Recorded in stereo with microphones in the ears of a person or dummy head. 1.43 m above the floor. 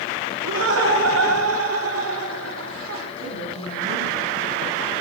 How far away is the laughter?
About 4 m.